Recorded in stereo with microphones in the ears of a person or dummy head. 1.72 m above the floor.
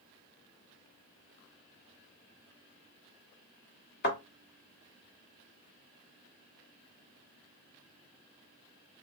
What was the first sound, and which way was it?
A thud, 45° left (ahead or behind).